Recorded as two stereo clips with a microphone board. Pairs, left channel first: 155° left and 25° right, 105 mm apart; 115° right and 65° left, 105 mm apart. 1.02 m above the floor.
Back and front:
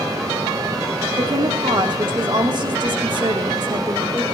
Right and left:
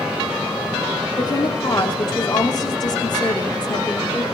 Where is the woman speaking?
65° right, 2.5 m.